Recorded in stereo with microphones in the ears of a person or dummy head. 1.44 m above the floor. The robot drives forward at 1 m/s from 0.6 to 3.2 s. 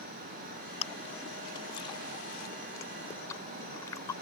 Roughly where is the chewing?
Left.